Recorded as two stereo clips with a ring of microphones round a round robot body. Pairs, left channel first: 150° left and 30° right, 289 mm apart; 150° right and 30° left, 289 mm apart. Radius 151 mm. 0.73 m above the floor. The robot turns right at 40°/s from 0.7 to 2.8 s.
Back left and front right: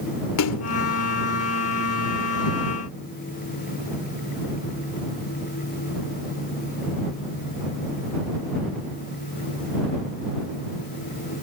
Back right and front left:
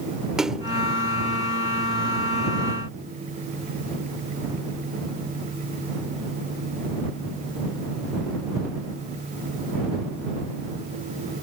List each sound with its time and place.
0.4 s a splash: 120° left